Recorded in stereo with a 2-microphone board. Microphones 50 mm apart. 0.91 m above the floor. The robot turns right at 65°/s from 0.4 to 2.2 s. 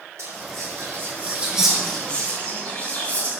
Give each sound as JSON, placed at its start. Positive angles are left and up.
{"t": 0.2, "sound": "whispering", "side_deg": -80, "distance_m": 2.5}